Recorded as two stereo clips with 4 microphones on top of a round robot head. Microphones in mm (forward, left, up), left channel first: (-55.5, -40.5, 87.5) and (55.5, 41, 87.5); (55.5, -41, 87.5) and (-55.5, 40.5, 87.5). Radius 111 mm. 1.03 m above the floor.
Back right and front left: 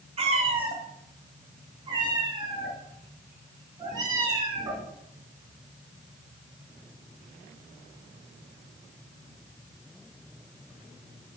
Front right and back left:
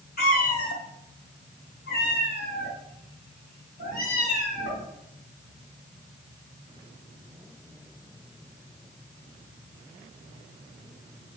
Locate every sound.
0.2 s a cat meowing: 10° right, 1.4 m; by 4.8 s 30° right, 4 m